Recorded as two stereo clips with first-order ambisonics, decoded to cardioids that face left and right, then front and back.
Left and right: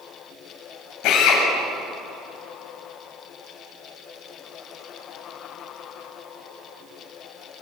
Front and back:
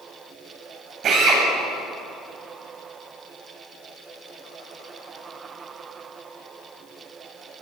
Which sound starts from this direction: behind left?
A drill, at 1.0 s.